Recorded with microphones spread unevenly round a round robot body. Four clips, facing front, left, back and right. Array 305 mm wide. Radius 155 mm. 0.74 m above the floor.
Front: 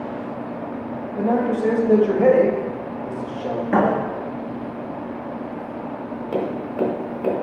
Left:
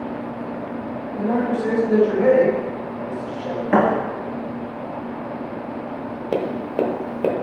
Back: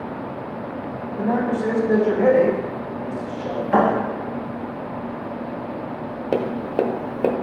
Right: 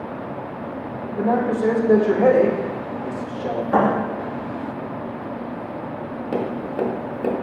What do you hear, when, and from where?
1.2 s a man speaking: 50° right, 1.0 m
3.7 s a thud: 65° left, 2 m
6.3 s tapping: 155° left, 0.8 m